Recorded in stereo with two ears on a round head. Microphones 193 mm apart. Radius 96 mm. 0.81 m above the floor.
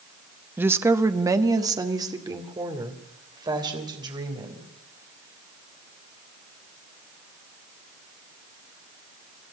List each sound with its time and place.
0.6 s a woman speaking: 10° right (ahead or behind), 0.9 m; by 4.7 s 20° right (ahead or behind), 4.5 m